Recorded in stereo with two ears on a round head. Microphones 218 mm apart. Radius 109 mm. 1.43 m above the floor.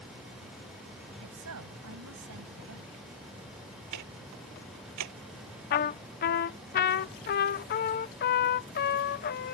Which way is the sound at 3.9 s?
80° right.